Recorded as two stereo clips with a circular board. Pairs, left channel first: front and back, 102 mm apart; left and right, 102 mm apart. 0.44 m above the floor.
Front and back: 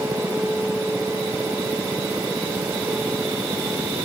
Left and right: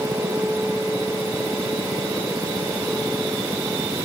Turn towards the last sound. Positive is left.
No sound to turn to.